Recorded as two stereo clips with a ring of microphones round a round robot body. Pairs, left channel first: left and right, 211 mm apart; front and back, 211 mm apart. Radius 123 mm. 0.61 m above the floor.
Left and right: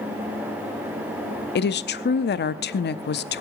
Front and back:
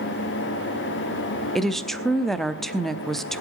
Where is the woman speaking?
90° left, 0.8 m.